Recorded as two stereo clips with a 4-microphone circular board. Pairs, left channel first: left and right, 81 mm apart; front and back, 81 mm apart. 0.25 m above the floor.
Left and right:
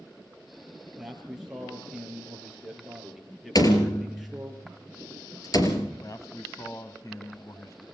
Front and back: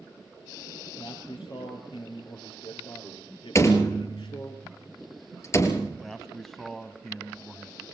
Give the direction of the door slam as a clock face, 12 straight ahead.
10 o'clock.